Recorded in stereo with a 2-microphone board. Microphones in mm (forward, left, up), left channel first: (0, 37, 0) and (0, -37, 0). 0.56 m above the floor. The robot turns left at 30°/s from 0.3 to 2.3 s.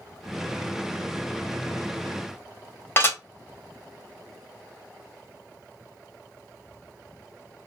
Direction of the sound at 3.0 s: 30° left (ahead or behind).